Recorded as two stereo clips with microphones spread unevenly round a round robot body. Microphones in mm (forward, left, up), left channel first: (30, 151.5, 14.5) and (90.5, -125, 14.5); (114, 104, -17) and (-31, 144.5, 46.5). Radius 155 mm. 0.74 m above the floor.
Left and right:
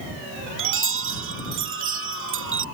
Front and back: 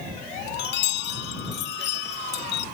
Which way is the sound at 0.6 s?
35° right.